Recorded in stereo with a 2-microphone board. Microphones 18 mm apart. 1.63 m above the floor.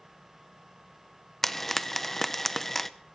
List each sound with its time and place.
1.4 s frying: 10° left (ahead or behind), 0.7 m